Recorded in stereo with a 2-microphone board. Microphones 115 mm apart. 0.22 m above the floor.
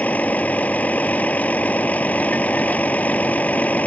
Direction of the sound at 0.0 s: 15° left (ahead or behind).